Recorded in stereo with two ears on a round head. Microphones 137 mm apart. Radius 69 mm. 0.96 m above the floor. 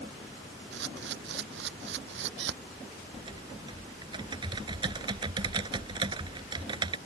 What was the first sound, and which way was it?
A camera shutter, 80° right.